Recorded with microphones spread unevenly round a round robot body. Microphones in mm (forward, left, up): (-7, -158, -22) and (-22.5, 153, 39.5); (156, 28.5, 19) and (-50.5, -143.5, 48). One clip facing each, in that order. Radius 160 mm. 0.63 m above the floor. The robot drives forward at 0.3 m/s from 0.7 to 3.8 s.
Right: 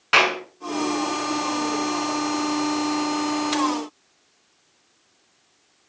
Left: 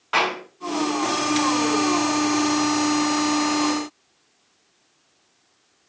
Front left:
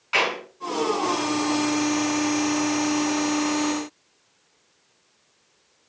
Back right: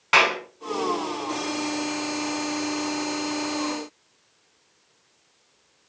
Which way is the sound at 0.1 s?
125° right.